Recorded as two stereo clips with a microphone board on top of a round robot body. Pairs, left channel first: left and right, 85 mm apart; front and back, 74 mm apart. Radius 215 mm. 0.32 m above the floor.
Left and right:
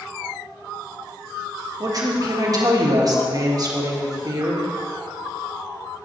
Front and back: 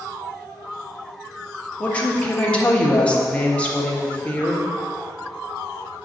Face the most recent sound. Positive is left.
turn(degrees=-70)